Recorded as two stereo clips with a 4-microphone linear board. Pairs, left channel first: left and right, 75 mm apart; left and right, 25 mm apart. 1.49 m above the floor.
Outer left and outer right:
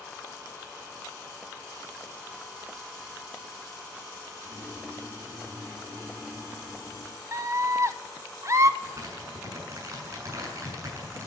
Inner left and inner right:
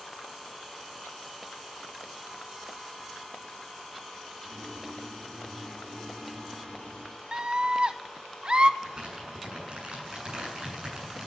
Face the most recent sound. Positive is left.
turn(degrees=-45)  # may be behind; listen again after turning